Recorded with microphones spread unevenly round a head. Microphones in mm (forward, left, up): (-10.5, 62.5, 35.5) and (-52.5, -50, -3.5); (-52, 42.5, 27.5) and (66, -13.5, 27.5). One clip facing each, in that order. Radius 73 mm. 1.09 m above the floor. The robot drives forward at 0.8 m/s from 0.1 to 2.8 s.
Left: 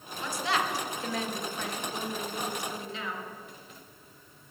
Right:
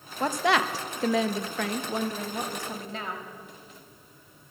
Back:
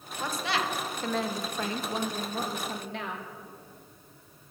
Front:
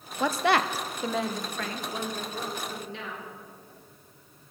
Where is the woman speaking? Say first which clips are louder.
Right 6 dB, front 7 dB; 55° right, 0.8 m; by 3.2 s 155° right, 1.7 m.